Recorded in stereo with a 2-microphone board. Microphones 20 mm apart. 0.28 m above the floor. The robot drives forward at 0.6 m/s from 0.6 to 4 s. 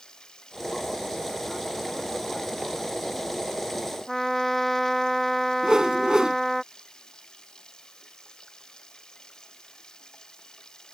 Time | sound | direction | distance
0.0 | running water | 45° left (ahead or behind) | ?
4.1 | a trumpet | 10° left (ahead or behind) | ?
5.6 | a whoosh | 45° right (ahead or behind) | ?